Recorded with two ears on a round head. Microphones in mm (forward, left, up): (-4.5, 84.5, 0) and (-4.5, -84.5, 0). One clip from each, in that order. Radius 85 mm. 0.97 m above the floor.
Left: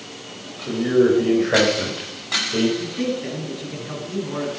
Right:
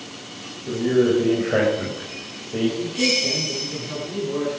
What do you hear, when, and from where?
0.7 s a man speaking: 70° left (ahead or behind), 5 m; by 2.7 s 85° left, 5 m
2.8 s a man speaking: 50° left (ahead or behind), 9 m